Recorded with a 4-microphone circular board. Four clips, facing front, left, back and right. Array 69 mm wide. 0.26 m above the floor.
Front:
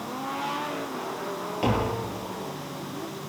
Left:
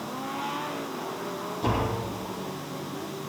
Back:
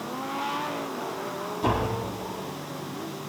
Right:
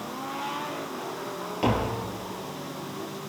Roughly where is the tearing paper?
I don't hear tearing paper.